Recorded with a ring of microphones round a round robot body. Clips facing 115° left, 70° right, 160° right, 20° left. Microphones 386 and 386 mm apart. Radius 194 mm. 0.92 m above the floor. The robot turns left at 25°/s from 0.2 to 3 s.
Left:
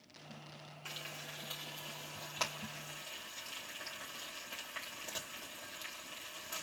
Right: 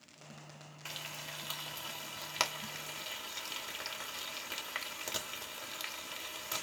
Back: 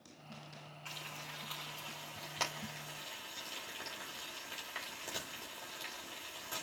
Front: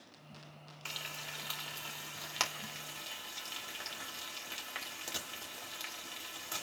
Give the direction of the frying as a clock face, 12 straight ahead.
12 o'clock.